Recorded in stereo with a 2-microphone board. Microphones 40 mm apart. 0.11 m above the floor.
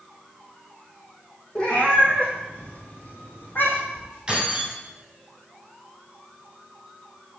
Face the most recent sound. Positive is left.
turn(degrees=-15)  # may be behind; listen again after turning